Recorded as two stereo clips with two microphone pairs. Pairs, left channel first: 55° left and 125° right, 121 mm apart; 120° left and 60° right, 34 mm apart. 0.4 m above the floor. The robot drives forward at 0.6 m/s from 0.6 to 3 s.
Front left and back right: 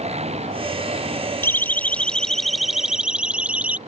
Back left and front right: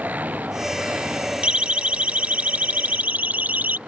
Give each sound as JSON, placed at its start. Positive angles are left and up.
{"t": 0.0, "sound": "an engine running", "azimuth_deg": -95}
{"t": 1.4, "sound": "a siren", "azimuth_deg": -10}